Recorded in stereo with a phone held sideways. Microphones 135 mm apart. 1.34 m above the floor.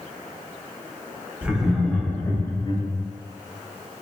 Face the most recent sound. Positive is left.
turn(degrees=30)  # may be behind; listen again after turning